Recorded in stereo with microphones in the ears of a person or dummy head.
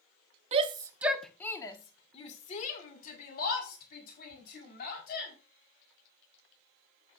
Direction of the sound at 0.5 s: 35° right (ahead or behind).